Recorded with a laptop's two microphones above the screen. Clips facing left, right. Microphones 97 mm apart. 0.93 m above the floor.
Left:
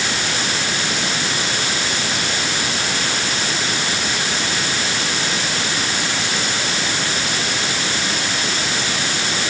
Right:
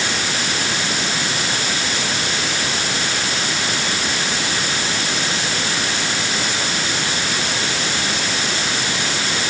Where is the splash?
No splash in this recording.